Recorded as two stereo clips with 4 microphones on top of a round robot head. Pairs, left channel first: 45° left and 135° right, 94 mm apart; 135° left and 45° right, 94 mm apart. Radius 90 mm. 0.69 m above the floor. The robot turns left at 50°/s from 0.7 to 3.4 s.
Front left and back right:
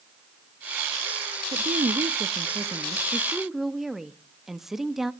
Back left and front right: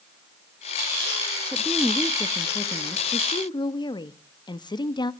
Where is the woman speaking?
130° right, 1.0 m; by 5.1 s 135° left, 1.0 m.